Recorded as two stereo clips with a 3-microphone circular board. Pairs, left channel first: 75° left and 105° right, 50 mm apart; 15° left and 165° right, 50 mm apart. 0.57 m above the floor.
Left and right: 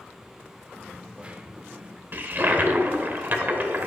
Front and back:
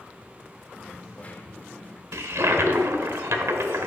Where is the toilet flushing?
150° right, 0.9 m.